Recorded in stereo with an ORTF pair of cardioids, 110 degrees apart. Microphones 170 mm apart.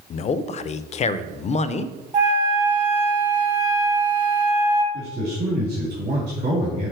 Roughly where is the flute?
Ahead right.